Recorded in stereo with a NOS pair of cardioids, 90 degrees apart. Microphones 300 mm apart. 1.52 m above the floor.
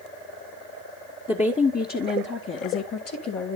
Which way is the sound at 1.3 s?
20° left.